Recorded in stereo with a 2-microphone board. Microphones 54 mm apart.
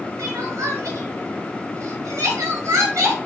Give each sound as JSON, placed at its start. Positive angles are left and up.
{"t": 0.2, "sound": "crying", "side_deg": -75, "distance_m": 1.3}